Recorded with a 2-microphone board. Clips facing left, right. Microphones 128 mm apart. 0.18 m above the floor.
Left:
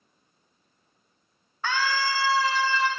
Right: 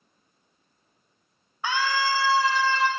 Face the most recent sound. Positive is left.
turn(degrees=-35)  # may be behind; listen again after turning